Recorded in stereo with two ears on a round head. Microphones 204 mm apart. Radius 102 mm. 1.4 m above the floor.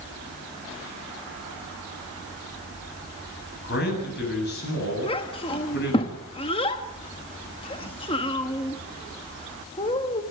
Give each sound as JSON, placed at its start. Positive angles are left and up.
{"t": 3.6, "sound": "a man speaking", "side_deg": 45, "distance_m": 8.5}
{"t": 5.0, "sound": "a child speaking", "side_deg": 25, "distance_m": 1.2}